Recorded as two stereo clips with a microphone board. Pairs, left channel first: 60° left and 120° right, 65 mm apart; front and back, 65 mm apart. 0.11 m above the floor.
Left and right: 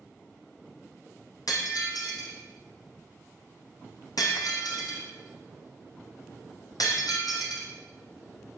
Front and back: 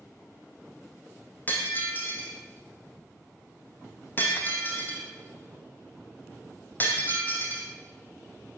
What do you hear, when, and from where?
1.5 s breaking glass: 60° left, 3 m